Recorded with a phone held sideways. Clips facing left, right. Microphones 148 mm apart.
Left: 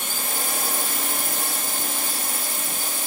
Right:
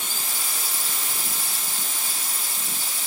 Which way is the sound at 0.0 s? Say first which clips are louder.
Left 5 dB; 60° left (ahead or behind).